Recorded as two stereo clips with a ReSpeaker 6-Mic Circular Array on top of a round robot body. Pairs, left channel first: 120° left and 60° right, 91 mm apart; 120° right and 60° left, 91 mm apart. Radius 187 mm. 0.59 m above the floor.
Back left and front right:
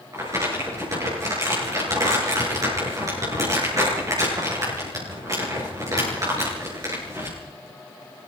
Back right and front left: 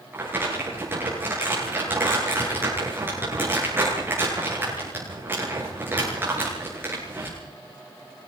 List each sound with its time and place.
0.1 s crumpling: 5° right, 9 m